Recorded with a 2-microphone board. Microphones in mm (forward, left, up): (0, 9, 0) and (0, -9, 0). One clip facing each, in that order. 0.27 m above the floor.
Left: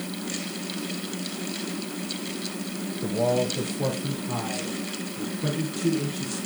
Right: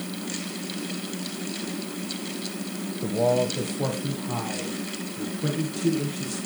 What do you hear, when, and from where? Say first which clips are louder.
3.0 s a man speaking: right 2 dB; 10° right (ahead or behind), 1.2 m